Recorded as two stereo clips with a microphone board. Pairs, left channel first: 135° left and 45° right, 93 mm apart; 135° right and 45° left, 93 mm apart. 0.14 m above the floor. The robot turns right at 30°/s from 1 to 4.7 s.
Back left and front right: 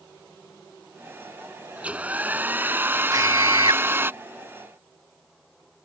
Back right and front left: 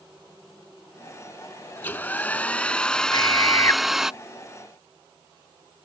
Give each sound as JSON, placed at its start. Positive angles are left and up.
{"t": 1.8, "sound": "a hair dryer", "azimuth_deg": -100}
{"t": 3.1, "sound": "a scream", "azimuth_deg": -95}